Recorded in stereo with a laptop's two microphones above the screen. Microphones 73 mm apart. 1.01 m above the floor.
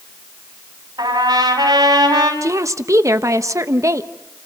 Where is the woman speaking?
45° right (ahead or behind), 1.0 m.